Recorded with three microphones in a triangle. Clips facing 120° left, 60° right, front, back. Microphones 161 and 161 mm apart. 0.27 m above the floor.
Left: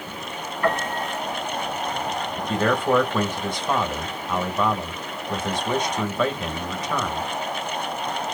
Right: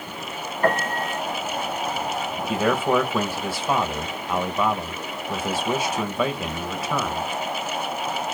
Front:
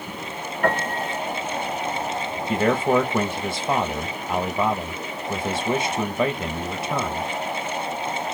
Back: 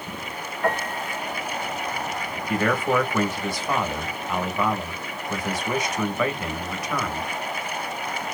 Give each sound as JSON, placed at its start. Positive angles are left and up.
{"t": 0.6, "sound": "a piano", "azimuth_deg": -10, "distance_m": 2.5}
{"t": 2.5, "sound": "a man speaking", "azimuth_deg": 15, "distance_m": 1.1}